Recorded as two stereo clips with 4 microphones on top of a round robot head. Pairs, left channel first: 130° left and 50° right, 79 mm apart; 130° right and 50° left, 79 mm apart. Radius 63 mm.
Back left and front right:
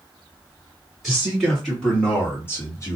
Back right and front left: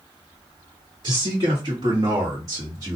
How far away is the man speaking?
About 1.6 m.